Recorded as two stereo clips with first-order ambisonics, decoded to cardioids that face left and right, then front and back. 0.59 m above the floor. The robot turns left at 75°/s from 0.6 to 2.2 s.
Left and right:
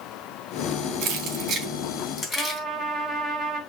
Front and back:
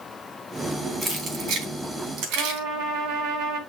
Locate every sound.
1.0 s keys jangling: 115° right, 3 m; by 2.6 s 155° left, 3 m
2.4 s a trumpet: 175° left, 3 m